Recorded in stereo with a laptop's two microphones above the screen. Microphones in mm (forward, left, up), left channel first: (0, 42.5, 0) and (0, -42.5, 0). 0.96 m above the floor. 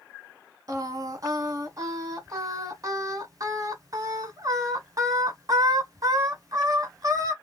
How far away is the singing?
About 1.0 m.